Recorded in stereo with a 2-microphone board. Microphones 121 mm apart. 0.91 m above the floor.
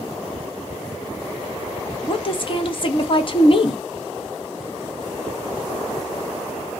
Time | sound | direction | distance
2.1 | a woman speaking | 45° left (ahead or behind) | 0.5 m